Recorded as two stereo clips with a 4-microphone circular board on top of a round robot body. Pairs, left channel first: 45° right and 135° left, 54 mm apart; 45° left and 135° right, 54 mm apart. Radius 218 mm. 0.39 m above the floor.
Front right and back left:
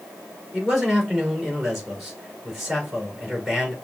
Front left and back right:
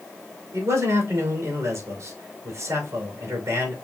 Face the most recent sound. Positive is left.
turn(degrees=-140)